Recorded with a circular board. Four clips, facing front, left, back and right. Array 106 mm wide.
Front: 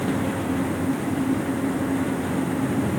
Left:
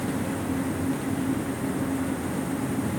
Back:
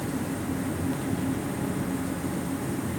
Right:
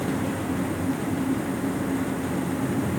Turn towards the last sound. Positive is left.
No sound to turn to.